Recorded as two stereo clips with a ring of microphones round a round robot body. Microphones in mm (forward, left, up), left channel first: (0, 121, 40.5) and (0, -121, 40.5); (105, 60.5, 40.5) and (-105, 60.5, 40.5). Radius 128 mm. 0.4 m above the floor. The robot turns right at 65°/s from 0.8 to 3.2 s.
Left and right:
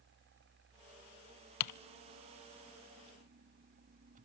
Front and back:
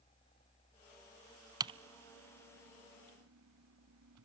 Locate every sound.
1.6 s typing on a keyboard: 105° left, 0.6 m; by 4.2 s 150° right, 0.6 m